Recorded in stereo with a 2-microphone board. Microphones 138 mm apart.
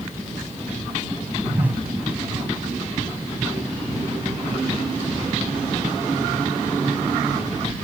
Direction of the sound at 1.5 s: 10° right (ahead or behind).